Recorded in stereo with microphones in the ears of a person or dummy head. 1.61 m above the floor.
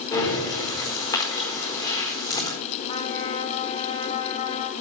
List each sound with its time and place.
0.1 s breathing: 20° left (ahead or behind), 4 m
2.9 s a trumpet: 30° left (ahead or behind), 1.4 m